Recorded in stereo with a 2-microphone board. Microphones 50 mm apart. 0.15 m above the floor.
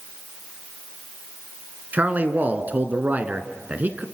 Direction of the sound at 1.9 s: 35° right (ahead or behind).